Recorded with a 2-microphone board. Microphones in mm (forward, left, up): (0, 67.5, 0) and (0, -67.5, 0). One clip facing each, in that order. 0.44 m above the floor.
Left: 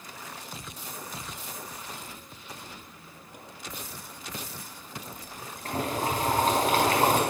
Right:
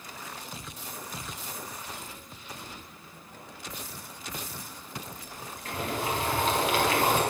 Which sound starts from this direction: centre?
A squeak, at 2.9 s.